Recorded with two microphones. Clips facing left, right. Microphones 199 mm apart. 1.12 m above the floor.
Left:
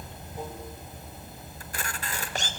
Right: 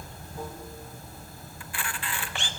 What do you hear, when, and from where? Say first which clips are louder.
0.0 s running water: even; 20° left (ahead or behind), 2 m
1.6 s a camera shutter: even; 40° left (ahead or behind), 1.2 m